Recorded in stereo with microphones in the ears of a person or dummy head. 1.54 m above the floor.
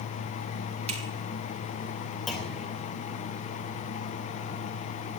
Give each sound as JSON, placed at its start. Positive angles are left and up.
{"t": 0.9, "sound": "a finger snap", "side_deg": -35, "distance_m": 3.5}
{"t": 2.3, "sound": "a clunk", "side_deg": 5, "distance_m": 2.5}